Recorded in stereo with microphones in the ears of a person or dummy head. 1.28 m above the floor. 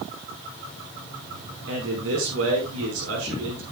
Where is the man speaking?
80° right, 5 m.